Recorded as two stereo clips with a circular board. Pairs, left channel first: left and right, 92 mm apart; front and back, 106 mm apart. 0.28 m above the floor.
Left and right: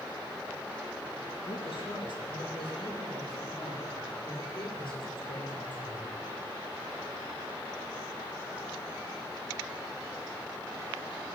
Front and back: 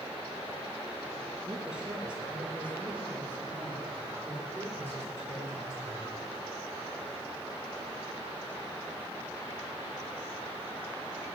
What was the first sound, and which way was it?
A man speaking, 100° left.